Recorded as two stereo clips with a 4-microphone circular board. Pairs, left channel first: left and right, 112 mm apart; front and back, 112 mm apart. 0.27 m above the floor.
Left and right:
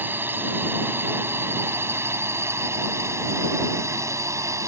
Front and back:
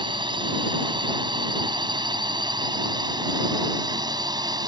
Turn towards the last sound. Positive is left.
turn(degrees=-145)